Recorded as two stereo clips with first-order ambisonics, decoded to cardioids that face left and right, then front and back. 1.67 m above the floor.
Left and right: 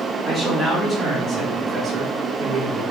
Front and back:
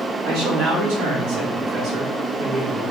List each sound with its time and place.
0.2 s a man speaking: 175° left, 1.4 m; by 2.8 s 120° right, 1.0 m